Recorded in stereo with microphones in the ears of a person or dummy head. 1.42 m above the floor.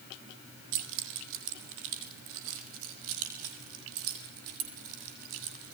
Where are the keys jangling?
65° right (ahead or behind), 3.5 m; by 5.7 s 80° right, 7.5 m.